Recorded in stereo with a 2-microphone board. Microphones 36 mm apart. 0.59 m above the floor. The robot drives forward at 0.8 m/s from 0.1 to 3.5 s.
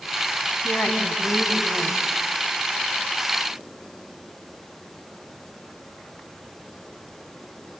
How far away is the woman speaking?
About 3.5 m.